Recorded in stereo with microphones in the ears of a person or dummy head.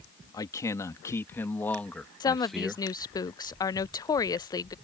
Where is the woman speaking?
20° left (ahead or behind).